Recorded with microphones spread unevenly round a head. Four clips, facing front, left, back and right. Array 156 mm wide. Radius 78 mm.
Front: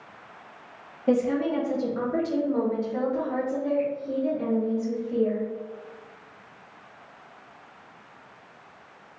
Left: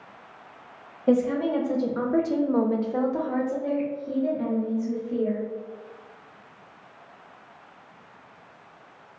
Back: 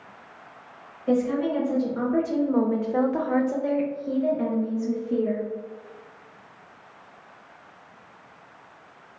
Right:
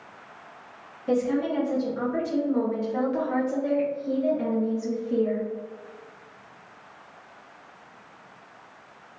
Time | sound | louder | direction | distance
1.1 | a woman speaking | left 2 dB, even | 75° left | 1.1 m